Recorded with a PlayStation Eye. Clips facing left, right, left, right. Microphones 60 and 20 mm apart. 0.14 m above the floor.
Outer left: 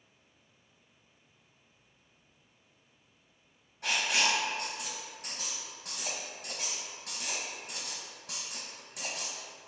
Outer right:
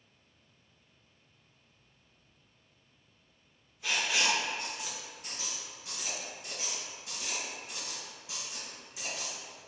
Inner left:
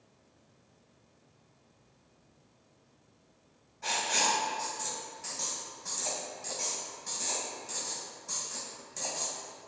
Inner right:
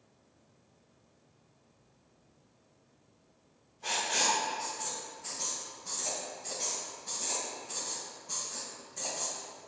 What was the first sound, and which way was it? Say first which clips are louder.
Writing: outer left 1 dB, inner left 1 dB; 60° left (ahead or behind).